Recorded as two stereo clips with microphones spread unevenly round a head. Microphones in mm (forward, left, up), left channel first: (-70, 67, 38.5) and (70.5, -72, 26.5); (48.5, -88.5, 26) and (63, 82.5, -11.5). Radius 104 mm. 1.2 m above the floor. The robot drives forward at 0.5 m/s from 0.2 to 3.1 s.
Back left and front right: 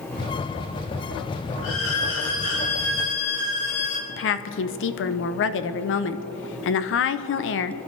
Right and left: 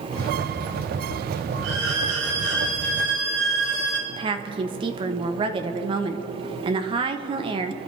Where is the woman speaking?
140° left, 0.8 m.